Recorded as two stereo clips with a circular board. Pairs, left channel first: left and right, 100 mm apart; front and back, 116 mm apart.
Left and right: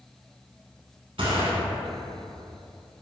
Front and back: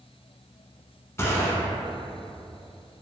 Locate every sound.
1.2 s a gunshot: 65° right, 0.9 m